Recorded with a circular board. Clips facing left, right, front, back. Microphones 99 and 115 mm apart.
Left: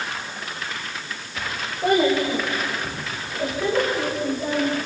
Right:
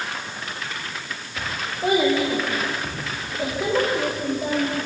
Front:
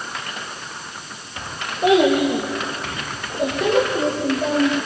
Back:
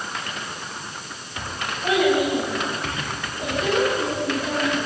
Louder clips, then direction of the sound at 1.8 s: Left 1 dB, front 5 dB; straight ahead.